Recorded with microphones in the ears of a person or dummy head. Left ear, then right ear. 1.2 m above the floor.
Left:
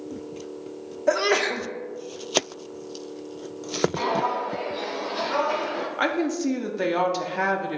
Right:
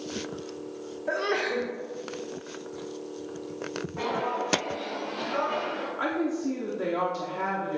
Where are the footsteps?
65° left (ahead or behind), 2.5 m; by 5.9 s 55° left (ahead or behind), 2.5 m.